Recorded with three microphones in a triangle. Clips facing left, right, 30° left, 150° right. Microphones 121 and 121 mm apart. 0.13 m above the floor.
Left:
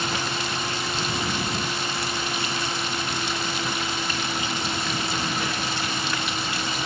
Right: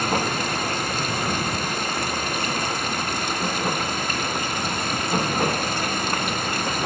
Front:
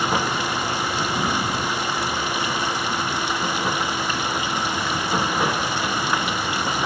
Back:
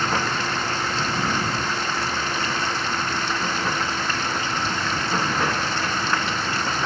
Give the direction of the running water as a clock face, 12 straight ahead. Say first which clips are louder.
Right 5 dB, front 1 dB; 2 o'clock.